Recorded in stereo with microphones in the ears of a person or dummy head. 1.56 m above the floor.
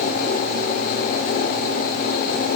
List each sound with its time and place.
Only background noise.